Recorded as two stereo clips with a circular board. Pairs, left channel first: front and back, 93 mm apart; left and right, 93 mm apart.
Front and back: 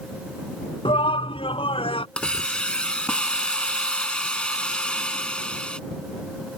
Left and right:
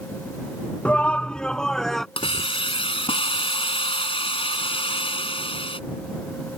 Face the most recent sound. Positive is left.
turn(degrees=80)